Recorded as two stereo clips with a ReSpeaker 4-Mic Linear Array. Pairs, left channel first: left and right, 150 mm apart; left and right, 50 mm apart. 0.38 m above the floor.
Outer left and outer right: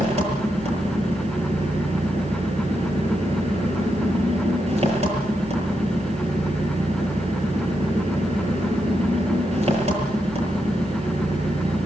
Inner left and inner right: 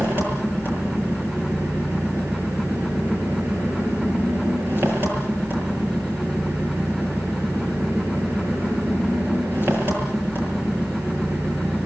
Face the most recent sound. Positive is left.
turn(degrees=-45)  # may be behind; listen again after turning